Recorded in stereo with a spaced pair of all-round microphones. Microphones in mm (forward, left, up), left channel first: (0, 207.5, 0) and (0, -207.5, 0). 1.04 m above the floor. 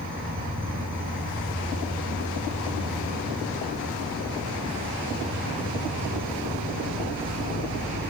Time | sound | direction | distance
0.0 | an insect | 20° right (ahead or behind) | 1.5 m